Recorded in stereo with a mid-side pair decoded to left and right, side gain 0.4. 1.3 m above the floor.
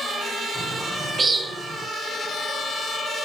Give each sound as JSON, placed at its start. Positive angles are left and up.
{"t": 0.6, "sound": "a bird", "azimuth_deg": -40, "distance_m": 4.0}